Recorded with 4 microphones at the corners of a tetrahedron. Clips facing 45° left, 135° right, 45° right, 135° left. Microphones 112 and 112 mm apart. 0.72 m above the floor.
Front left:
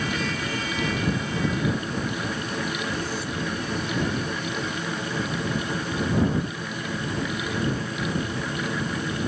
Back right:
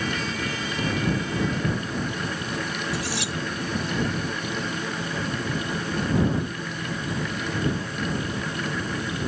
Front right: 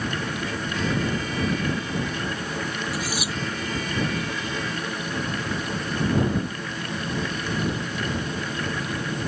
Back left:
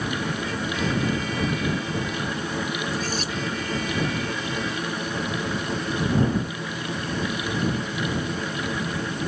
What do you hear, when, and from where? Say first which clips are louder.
2.9 s cutlery clinking: even, back left 1 dB; 125° right